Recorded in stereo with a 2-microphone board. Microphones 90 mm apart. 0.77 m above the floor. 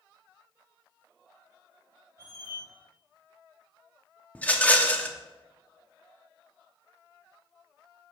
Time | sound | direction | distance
2.2 | a squeak | 25° right (ahead or behind) | 2.5 m
4.3 | a rattle | 15° left (ahead or behind) | 0.8 m